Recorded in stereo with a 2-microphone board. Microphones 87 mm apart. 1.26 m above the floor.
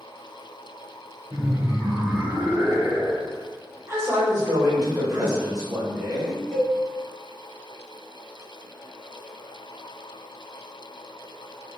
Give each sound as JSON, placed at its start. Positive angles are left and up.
{"t": 1.3, "sound": "laughter", "side_deg": -60, "distance_m": 1.4}
{"t": 3.9, "sound": "a man speaking", "side_deg": -30, "distance_m": 1.8}
{"t": 6.5, "sound": "a cowbell", "side_deg": 15, "distance_m": 2.0}